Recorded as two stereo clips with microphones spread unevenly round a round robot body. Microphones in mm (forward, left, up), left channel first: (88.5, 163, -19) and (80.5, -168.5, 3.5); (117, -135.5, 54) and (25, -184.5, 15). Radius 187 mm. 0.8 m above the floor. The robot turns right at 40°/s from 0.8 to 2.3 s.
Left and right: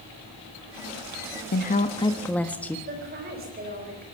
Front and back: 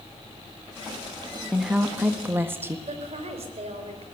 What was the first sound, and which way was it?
A woman speaking, 140° left.